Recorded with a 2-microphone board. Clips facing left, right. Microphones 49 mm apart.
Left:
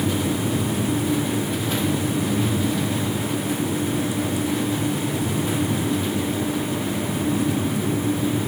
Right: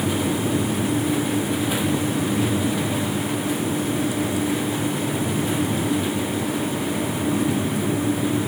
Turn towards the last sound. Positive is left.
No sound to turn to.